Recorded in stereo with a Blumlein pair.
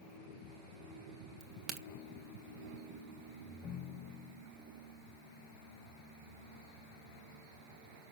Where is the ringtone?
20° left, 1.0 m.